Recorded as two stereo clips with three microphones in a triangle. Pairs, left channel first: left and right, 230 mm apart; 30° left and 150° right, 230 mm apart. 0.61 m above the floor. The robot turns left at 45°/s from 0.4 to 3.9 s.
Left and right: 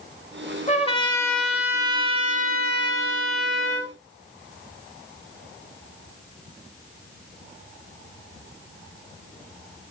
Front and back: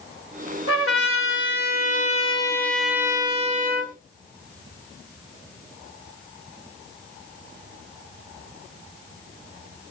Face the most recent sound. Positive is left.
turn(degrees=-110)